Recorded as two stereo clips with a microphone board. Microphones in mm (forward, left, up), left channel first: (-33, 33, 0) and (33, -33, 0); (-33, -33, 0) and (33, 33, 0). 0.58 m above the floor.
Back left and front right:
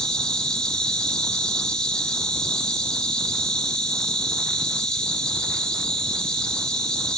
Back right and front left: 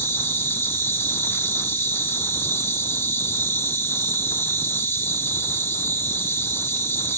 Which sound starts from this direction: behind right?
An insect, at 0.0 s.